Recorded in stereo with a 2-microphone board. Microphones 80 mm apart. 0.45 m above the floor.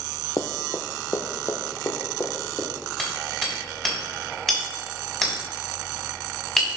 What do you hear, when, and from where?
0.4 s running footsteps: 50° left (ahead or behind), 0.6 m; by 2.7 s 30° left (ahead or behind), 2.5 m
3.0 s hammering: 5° left (ahead or behind), 3 m